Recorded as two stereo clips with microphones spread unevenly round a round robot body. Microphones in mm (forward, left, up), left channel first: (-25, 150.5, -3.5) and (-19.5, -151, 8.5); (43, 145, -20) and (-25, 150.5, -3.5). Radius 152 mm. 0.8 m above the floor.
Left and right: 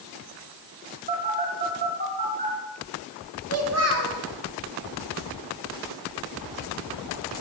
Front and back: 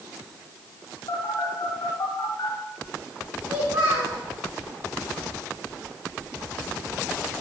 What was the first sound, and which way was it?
A phone buzzing, 25° right.